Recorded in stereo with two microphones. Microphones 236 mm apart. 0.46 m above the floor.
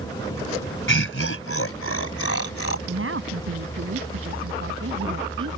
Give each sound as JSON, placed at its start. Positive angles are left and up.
{"t": 0.9, "sound": "laughter", "side_deg": 60}
{"t": 2.9, "sound": "a woman speaking", "side_deg": -65}